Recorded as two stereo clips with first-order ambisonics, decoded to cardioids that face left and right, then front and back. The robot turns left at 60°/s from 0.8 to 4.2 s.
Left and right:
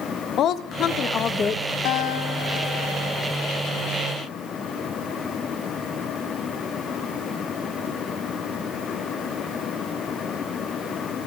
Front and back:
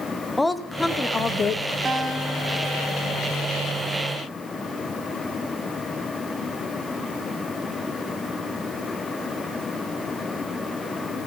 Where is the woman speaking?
80° left, 0.6 m; by 1.8 s 25° left, 0.6 m.